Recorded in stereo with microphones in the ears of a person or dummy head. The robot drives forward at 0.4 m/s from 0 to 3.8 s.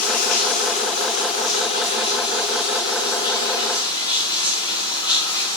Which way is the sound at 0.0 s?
50° left (ahead or behind).